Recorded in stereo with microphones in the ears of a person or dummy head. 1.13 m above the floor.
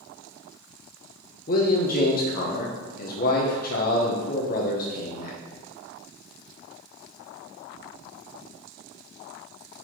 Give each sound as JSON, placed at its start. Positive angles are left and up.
{"t": 1.5, "sound": "a man speaking", "side_deg": 45, "distance_m": 0.7}